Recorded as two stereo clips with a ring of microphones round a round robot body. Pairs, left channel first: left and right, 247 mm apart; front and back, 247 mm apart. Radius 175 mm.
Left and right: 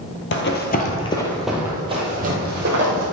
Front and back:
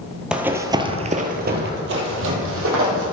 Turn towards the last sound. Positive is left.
turn(degrees=-140)